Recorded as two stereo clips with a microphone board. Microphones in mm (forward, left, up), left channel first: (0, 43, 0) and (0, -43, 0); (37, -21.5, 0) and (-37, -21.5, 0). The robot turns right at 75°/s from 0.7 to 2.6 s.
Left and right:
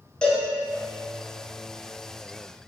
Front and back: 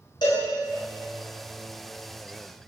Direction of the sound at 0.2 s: 10° left.